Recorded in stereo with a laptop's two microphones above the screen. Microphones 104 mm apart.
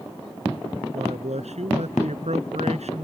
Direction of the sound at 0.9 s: 85° right.